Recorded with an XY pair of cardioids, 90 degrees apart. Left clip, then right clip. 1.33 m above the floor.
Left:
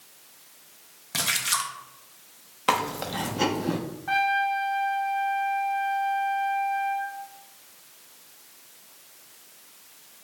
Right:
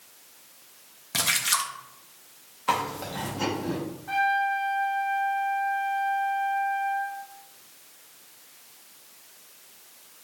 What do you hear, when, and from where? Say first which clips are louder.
1.1 s a splash: right 1 dB; 15° right, 0.6 m
2.7 s chewing: left 2 dB; 60° left, 0.8 m
4.1 s a trumpet: left 1 dB; 60° left, 0.9 m